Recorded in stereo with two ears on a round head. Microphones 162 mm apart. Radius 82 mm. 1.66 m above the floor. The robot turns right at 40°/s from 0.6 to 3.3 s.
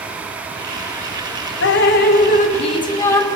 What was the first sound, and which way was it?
Dripping, 105° left.